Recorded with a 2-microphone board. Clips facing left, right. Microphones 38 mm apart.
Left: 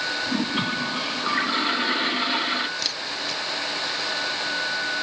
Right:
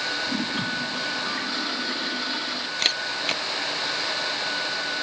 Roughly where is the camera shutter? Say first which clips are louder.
Right 3 dB; right.